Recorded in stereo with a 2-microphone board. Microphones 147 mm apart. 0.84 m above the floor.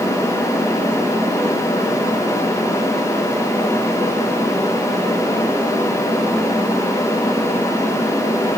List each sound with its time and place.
Only background noise.